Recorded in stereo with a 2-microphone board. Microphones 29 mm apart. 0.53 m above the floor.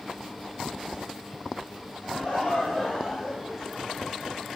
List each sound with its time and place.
2.0 s laughter: 45° left (ahead or behind), 1.7 m; by 4.4 s centre (ahead or behind), 1.8 m